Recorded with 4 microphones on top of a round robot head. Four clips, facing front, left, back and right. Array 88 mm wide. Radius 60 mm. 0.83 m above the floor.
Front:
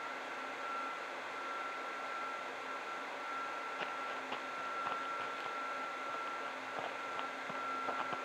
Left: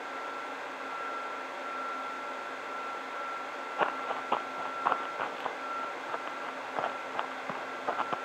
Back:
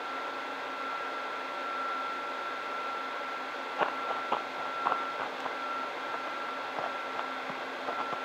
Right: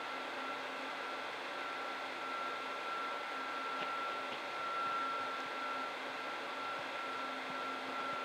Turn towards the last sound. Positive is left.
turn(degrees=100)